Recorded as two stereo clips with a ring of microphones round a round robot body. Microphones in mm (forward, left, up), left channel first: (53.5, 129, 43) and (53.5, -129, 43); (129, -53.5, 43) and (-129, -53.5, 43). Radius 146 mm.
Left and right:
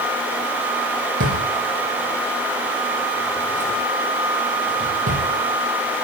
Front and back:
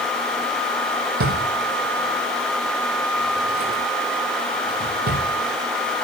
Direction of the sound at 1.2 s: 140° right.